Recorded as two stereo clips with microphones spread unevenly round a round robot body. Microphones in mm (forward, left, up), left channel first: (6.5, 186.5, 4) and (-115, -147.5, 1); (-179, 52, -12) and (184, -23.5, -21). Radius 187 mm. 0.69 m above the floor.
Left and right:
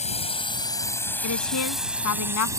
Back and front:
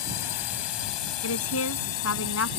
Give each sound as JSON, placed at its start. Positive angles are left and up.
{"t": 0.0, "sound": "a drone", "azimuth_deg": 140}
{"t": 1.2, "sound": "a woman speaking", "azimuth_deg": 115}